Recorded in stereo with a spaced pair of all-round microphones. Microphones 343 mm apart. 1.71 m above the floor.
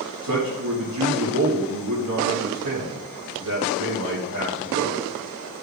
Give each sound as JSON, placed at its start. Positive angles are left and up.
{"t": 0.2, "sound": "a man speaking", "side_deg": -70, "distance_m": 3.0}